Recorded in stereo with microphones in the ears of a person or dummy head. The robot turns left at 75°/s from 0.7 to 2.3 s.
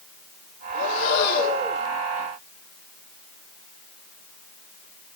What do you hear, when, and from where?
0.7 s breathing: 100° left, 2 m; by 1.8 s 20° left, 2 m